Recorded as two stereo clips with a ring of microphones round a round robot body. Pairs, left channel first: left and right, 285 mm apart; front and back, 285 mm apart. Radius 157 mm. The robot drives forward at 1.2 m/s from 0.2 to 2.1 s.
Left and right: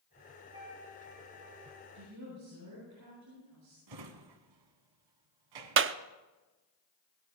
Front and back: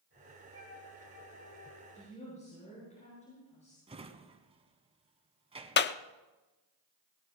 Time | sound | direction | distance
0.5 | a flute | 20° right | 8.5 m
1.9 | a woman speaking | 65° right | 9.5 m
3.9 | a drawer | 110° right | 1.3 m
5.8 | a clap | 50° right | 0.6 m